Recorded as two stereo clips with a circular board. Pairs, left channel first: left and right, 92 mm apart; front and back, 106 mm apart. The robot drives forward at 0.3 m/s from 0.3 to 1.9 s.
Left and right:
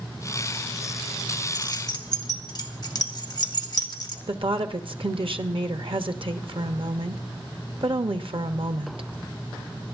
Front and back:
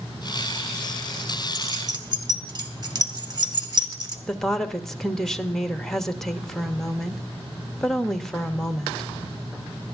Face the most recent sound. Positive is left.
turn(degrees=-85)